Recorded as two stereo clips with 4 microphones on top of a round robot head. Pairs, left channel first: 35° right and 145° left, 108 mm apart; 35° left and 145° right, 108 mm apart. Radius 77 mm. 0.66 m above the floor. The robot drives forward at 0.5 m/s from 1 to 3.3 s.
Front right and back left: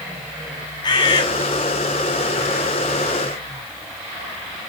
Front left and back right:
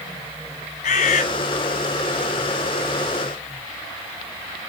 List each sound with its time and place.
0.8 s a bird: 20° left, 1.8 m